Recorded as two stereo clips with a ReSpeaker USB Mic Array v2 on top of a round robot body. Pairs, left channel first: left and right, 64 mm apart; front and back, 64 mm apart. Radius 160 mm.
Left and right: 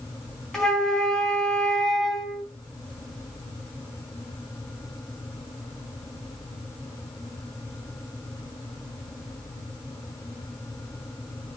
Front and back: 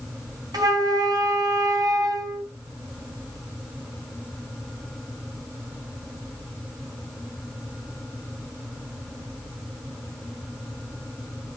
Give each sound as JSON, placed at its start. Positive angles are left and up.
{"t": 0.5, "sound": "a flute", "azimuth_deg": 175, "distance_m": 4.5}